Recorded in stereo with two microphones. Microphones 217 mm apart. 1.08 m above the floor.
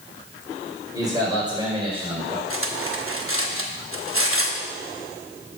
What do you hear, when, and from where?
0.9 s a man speaking: 15° right (ahead or behind), 4 m; by 2.4 s 25° right (ahead or behind), 4 m
2.5 s cutlery clinking: 70° right (ahead or behind), 0.9 m